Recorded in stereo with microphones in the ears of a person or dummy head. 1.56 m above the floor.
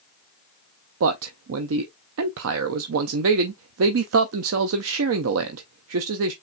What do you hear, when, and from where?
1.0 s a man speaking: 80° right, 0.5 m